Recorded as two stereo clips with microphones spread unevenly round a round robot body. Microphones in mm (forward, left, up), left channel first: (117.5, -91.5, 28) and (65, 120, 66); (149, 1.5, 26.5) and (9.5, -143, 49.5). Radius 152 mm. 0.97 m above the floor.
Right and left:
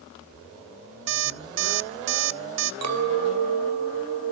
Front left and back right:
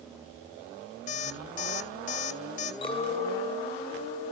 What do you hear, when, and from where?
1.1 s an alarm clock: 115° left, 0.5 m
2.8 s a clink: 120° left, 3 m